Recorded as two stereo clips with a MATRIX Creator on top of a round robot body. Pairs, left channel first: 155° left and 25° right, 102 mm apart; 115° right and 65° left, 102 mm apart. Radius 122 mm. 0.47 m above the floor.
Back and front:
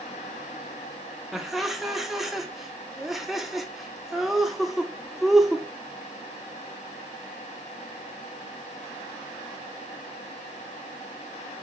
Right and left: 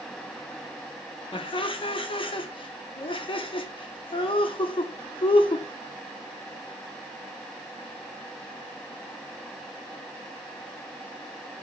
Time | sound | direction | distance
1.3 | laughter | 110° right | 1.0 m